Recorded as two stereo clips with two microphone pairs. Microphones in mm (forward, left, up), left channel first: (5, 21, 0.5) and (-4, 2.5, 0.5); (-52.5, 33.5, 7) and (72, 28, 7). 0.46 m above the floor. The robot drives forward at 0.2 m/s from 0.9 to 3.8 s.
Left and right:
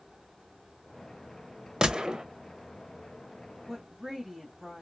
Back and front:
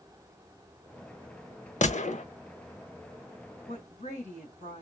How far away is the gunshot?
About 0.5 m.